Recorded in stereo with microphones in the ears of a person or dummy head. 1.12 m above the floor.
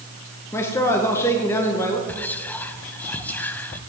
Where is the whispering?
10° left (ahead or behind), 0.7 m.